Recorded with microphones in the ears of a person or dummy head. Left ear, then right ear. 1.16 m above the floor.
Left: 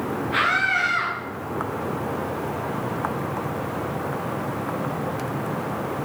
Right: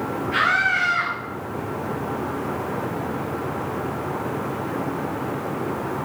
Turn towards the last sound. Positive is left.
turn(degrees=-15)  # may be behind; listen again after turning